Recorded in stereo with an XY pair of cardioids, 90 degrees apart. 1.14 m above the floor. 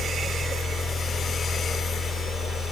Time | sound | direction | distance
0.0 | a fan | 65° left | 1.6 m